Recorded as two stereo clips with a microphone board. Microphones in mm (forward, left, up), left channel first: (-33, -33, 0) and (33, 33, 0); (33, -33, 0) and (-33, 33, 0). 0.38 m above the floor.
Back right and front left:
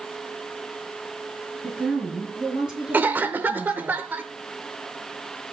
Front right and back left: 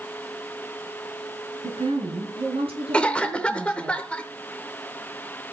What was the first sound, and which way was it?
A woman speaking, 130° left.